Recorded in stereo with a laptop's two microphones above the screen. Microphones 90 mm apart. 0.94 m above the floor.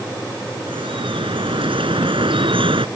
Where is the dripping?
85° right.